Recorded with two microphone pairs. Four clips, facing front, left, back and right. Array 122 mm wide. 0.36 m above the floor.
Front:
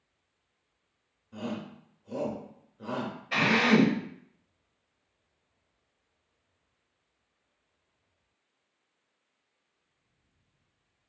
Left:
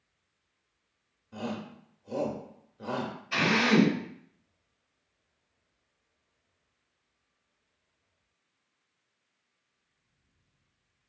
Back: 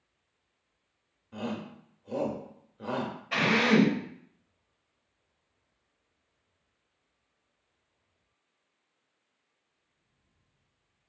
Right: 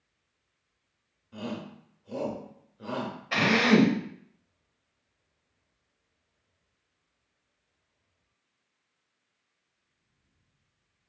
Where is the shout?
155° left, 0.9 m.